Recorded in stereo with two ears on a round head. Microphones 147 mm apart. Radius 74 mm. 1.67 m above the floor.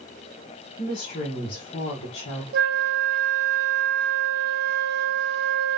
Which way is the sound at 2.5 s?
65° right (ahead or behind).